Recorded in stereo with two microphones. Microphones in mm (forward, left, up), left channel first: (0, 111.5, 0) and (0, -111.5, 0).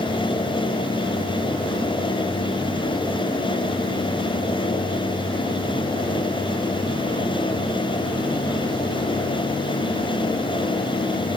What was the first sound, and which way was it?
Only background noise.